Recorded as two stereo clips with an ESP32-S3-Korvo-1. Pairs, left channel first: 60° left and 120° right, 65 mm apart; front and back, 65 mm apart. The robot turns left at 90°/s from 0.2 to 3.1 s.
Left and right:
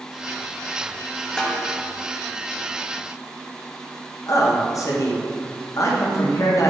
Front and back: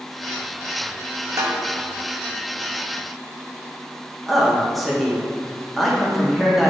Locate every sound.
1.4 s a snare drum: 135° left, 0.7 m; by 1.6 s 115° left, 0.7 m
4.3 s a man speaking: 90° left, 0.8 m